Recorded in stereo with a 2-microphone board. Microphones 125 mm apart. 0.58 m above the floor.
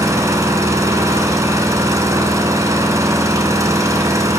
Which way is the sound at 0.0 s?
25° right (ahead or behind).